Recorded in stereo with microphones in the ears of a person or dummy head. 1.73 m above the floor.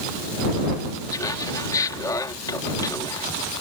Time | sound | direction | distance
1.1 | laughter | 25° left (ahead or behind) | ?